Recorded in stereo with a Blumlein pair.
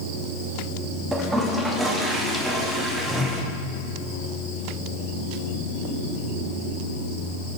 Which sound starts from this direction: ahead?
A toilet flushing, at 1.1 s.